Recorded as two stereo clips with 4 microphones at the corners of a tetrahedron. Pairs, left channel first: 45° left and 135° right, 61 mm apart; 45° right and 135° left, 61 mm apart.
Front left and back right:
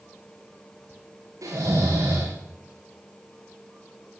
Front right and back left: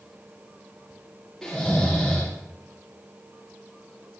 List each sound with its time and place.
1.4 s snoring: 130° right, 7 m